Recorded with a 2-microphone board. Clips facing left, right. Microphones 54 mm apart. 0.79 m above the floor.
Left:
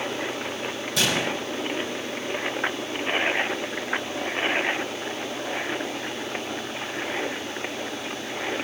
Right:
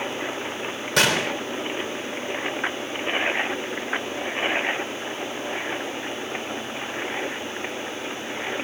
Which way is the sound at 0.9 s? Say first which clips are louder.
Right 4 dB; 70° right (ahead or behind).